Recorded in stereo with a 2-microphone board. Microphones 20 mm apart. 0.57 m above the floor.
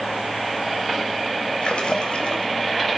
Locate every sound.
1.6 s a splash: 60° left (ahead or behind), 3 m